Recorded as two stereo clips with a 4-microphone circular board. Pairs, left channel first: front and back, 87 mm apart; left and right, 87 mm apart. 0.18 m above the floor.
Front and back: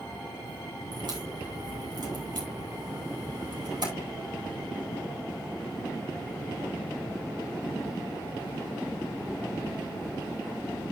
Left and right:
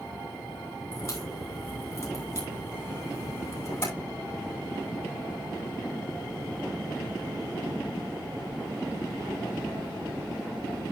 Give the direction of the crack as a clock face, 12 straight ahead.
7 o'clock.